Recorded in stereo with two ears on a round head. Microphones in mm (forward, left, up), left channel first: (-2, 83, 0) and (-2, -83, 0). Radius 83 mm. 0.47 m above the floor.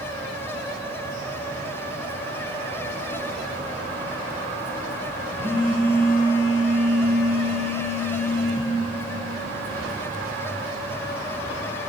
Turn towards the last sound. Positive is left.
turn(degrees=-60)  # may be behind; listen again after turning